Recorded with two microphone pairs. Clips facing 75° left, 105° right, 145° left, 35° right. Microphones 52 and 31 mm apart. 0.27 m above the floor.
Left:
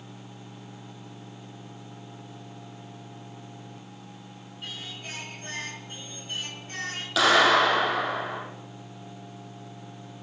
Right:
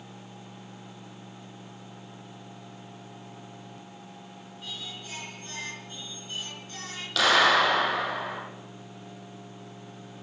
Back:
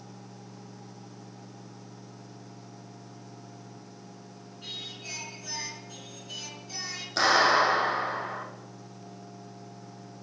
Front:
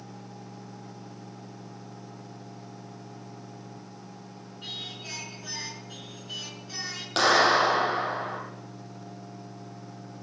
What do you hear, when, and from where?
4.6 s singing: 30° left, 4 m
7.2 s a clap: 5° right, 7 m